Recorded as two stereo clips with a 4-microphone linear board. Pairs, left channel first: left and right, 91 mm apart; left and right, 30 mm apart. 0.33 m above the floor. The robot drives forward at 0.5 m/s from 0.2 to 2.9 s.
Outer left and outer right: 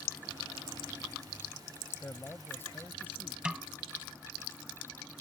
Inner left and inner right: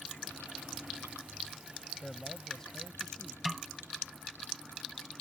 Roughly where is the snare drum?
Centre.